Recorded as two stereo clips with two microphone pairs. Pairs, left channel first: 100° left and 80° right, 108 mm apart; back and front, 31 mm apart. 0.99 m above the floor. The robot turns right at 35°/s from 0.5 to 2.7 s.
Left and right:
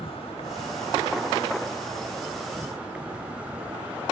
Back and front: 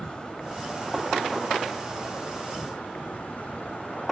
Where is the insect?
125° left; by 4.1 s 160° right.